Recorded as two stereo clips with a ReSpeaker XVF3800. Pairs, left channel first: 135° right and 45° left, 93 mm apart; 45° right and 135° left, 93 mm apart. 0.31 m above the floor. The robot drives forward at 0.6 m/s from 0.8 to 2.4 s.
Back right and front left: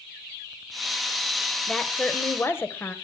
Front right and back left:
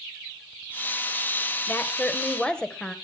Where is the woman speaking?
65° right, 1.1 m; by 3.0 s 115° right, 1.1 m.